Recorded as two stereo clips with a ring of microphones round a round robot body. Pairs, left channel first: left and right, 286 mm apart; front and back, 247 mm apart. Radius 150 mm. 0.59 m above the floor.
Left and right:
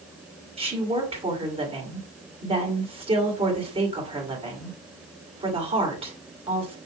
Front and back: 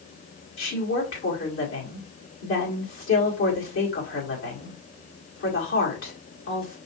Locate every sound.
0.6 s a woman speaking: 25° right, 1.9 m